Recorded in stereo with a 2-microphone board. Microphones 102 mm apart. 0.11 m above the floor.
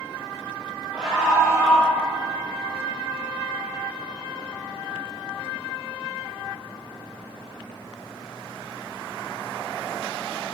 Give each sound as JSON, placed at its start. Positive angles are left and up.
{"t": 0.9, "sound": "a scream", "side_deg": -10, "distance_m": 2.5}